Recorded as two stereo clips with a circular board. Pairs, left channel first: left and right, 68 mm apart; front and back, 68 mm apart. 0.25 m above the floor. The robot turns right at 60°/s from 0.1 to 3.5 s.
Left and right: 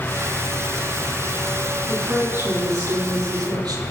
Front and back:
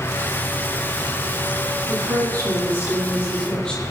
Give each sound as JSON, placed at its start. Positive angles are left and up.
{"t": 1.9, "sound": "a woman speaking", "azimuth_deg": -175, "distance_m": 8.5}